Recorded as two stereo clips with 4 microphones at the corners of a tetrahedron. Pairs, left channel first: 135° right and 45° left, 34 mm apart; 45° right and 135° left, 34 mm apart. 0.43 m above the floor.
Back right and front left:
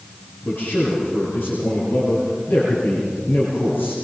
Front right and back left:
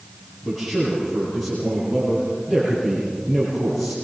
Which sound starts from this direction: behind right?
A man speaking, at 0.4 s.